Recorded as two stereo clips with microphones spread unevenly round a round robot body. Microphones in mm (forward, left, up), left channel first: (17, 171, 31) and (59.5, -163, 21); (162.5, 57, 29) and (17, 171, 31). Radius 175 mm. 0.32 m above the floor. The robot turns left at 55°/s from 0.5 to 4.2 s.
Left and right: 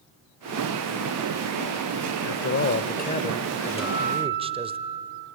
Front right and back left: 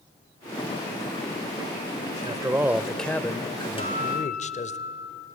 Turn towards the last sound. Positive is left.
turn(degrees=0)